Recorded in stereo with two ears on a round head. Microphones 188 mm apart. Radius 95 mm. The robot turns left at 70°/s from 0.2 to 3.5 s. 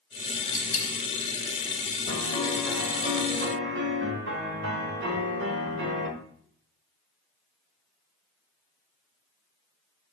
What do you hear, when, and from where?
0.5 s a dropped coin: 45° left (ahead or behind), 2 m; by 1.0 s 70° left (ahead or behind), 2 m
2.1 s a piano: 40° left, 1.3 m; by 6.1 s 60° right, 1.3 m